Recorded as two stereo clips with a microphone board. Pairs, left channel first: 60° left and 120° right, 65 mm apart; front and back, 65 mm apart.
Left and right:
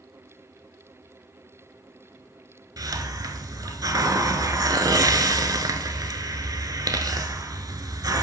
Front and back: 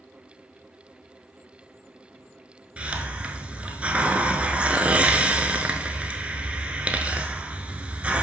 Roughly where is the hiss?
Right.